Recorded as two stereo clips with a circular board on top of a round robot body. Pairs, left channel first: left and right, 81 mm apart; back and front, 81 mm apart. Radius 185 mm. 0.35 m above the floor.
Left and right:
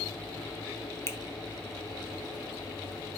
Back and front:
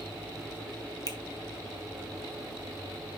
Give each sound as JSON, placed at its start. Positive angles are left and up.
{"t": 1.1, "sound": "a finger snap", "azimuth_deg": 145, "distance_m": 1.4}